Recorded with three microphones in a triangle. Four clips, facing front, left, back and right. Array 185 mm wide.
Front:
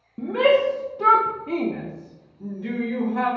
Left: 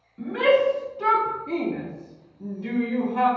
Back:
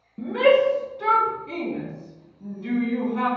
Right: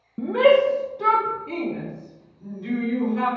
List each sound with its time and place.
0.2 s a shout: 75° right, 0.9 m; by 3.3 s 50° left, 1.9 m